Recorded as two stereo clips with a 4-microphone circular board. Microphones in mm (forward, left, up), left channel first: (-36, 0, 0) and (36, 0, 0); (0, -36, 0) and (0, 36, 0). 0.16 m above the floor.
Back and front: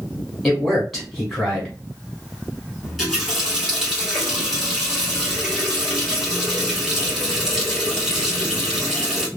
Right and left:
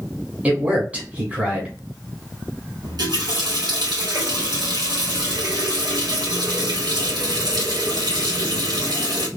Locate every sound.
0.4 s a man speaking: 105° left, 1.1 m
2.8 s a running tap: 85° left, 2 m